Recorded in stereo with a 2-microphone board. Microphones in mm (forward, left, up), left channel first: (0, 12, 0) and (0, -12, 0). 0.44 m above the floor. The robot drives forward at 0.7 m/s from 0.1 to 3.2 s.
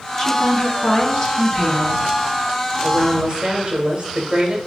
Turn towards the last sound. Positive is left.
turn(degrees=-35)  # may be behind; listen again after turning